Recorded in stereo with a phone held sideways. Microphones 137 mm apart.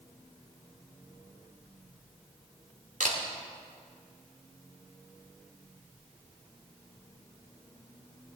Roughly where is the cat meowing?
No cat meowing in this recording.